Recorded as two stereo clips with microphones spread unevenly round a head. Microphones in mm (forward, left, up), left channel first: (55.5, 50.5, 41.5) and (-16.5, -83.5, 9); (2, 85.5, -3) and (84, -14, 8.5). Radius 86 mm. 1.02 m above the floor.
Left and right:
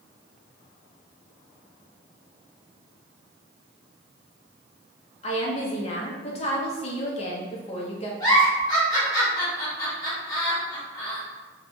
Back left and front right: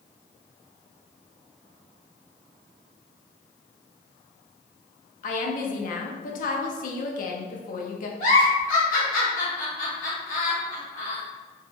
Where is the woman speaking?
120° left, 0.7 m.